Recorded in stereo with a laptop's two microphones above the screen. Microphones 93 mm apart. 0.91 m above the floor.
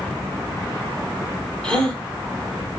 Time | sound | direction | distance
1.6 | a gasp | 10° left (ahead or behind) | 4.5 m